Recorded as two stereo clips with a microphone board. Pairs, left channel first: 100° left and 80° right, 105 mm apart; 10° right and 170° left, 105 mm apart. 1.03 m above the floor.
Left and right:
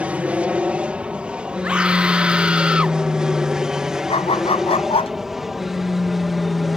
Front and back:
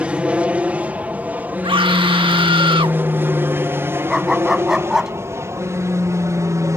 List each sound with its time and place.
0.0 s an aircraft: 135° right; by 6.8 s 165° right
1.6 s a scream: 160° right
4.1 s a dog barking: 85° left